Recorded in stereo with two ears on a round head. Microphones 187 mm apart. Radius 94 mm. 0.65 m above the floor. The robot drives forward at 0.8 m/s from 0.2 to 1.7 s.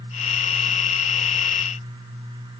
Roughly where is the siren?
I don't hear a siren.